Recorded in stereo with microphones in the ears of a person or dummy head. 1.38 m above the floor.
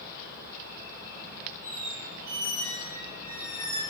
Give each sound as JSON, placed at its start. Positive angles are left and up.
{"t": 1.6, "sound": "a squeak", "side_deg": -55, "distance_m": 1.7}